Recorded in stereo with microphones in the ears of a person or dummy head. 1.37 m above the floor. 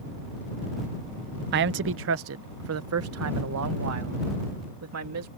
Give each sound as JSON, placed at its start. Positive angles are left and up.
{"t": 1.5, "sound": "a man speaking", "side_deg": -50}